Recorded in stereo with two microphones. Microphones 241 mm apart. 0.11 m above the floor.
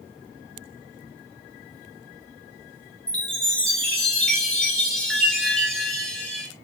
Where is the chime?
5° left (ahead or behind), 1.5 m.